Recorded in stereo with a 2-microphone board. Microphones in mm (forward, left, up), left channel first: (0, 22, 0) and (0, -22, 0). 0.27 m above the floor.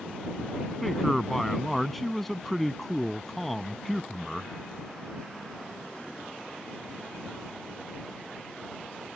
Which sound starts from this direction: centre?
A man speaking, at 0.8 s.